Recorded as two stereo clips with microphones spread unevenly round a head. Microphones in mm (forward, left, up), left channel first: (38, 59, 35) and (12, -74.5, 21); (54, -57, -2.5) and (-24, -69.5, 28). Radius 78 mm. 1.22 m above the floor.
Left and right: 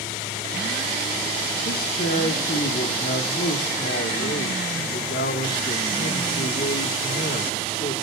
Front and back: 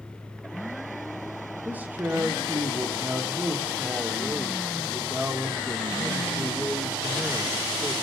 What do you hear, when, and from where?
1.6 s a man speaking: 105° left, 1.5 m